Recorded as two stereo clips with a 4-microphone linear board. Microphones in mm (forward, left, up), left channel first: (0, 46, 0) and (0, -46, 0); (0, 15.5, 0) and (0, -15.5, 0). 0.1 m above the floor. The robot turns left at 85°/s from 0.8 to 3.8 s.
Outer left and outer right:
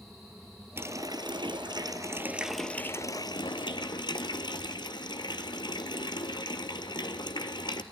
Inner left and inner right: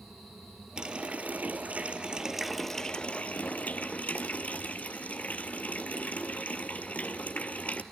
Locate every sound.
0.8 s a running tap: 35° right, 1.4 m; by 7.8 s 70° left, 1.4 m